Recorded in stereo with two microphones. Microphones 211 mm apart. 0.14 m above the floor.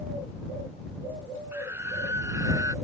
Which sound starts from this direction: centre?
A scream, at 1.5 s.